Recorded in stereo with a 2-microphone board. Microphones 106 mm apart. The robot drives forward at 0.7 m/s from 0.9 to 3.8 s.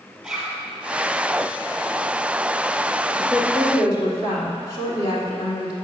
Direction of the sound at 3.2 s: 40° left (ahead or behind).